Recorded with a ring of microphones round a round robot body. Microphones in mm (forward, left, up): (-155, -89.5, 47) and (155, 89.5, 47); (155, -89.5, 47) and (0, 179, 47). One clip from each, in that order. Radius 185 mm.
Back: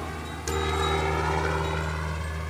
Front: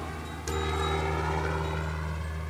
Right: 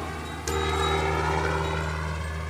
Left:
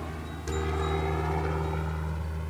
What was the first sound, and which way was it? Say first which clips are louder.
A helicopter: back 3 dB, right 6 dB; 70° right.